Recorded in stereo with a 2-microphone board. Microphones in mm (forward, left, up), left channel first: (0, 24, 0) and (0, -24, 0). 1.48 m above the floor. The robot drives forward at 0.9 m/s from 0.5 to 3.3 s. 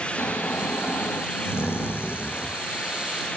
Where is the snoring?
70° left (ahead or behind), 2.5 m; by 2.6 s 40° left (ahead or behind), 4 m.